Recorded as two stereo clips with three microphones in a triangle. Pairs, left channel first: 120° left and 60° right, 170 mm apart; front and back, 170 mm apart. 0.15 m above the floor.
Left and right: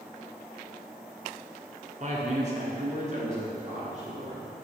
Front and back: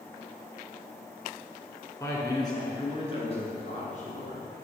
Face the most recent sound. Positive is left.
turn(degrees=-25)